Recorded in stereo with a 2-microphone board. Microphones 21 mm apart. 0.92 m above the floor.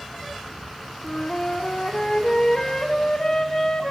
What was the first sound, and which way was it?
A flute, 40° left (ahead or behind).